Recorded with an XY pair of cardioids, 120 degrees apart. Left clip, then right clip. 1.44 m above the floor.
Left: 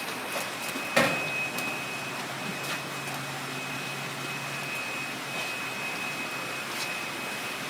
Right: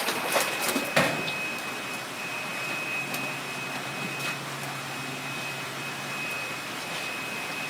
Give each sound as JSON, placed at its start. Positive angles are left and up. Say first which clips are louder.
{"t": 1.0, "sound": "hammering", "louder": "left 1 dB", "azimuth_deg": -10, "distance_m": 1.2}